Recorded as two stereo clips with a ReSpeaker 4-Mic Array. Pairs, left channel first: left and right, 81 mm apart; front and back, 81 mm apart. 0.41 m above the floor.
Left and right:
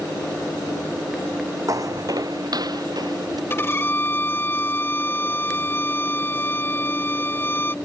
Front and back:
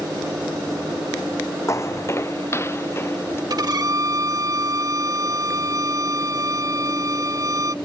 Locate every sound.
1.7 s footsteps: 50° right; by 3.4 s 60° right
3.5 s a violin: 145° left